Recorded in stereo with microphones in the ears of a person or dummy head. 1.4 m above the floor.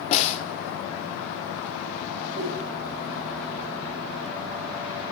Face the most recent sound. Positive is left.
turn(degrees=-60)  # may be behind; listen again after turning